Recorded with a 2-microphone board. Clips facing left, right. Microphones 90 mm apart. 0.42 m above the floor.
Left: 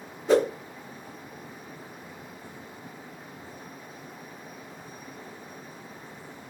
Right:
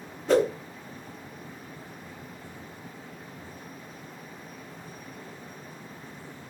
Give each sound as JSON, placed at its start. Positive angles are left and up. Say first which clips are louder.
{"t": 0.3, "sound": "a whoosh", "louder": "left 1 dB", "side_deg": 10, "distance_m": 0.9}